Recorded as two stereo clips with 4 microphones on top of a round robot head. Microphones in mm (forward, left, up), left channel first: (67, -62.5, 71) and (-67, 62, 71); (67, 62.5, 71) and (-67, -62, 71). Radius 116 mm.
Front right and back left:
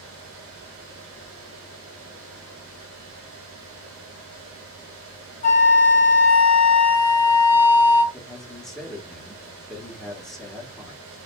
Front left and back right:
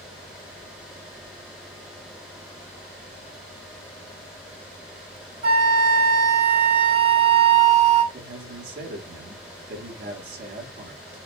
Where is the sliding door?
I don't hear a sliding door.